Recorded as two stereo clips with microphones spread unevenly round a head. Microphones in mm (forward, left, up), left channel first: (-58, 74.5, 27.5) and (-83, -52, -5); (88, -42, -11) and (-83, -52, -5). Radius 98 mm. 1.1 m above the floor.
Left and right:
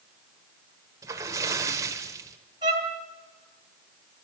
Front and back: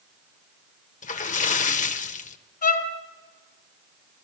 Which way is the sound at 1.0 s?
20° right.